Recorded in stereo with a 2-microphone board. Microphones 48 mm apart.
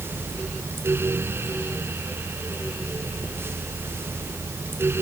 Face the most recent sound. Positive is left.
No sound to turn to.